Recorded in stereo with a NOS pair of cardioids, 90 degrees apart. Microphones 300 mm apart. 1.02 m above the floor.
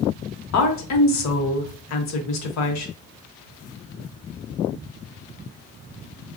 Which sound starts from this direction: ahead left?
A woman speaking, at 0.5 s.